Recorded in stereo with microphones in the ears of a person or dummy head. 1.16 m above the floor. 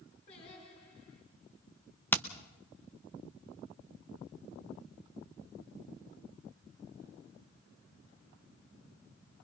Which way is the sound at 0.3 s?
45° left (ahead or behind).